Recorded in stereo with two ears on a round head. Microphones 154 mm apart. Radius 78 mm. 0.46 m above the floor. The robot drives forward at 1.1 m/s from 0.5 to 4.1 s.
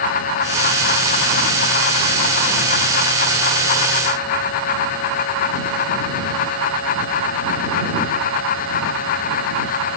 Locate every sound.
Only background noise.